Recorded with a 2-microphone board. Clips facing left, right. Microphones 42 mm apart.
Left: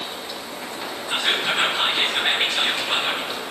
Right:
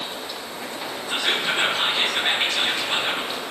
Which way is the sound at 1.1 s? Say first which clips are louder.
Left 1 dB; 20° left (ahead or behind).